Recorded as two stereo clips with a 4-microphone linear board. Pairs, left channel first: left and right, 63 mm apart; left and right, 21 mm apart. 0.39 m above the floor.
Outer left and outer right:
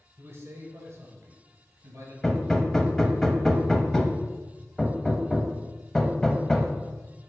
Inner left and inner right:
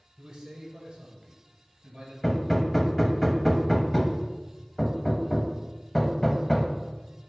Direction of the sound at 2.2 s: 10° left (ahead or behind).